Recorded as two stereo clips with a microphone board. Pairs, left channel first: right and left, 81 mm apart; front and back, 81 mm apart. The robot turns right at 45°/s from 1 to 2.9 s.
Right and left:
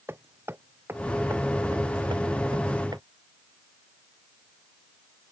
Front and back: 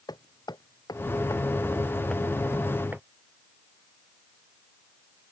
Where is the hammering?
30° left; by 3.0 s 115° left.